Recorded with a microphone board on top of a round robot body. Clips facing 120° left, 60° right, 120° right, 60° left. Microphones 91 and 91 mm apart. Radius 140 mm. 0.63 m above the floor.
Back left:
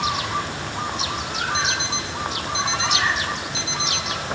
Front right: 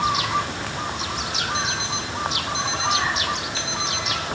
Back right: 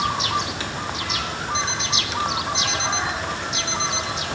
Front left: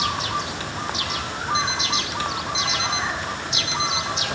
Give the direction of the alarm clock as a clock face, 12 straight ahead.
7 o'clock.